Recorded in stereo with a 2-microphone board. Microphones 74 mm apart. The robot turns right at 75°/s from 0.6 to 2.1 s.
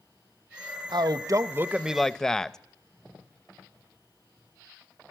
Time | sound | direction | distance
0.9 | a man speaking | 80° right | 0.6 m